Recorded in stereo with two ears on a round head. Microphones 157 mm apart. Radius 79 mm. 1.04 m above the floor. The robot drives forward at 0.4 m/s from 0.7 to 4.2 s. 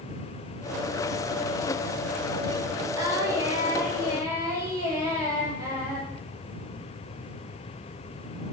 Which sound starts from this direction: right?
Singing, at 3.0 s.